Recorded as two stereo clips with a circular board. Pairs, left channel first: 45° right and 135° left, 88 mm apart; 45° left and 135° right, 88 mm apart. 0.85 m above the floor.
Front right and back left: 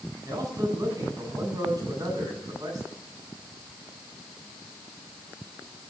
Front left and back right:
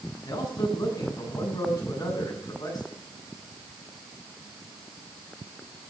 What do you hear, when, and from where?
0.2 s a man speaking: 90° left, 8 m